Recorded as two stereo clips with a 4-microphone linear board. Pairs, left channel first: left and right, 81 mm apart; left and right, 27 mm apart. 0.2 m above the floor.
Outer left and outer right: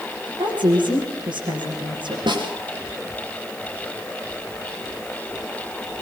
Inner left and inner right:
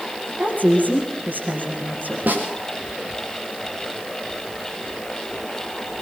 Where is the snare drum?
70° right (ahead or behind), 6 m.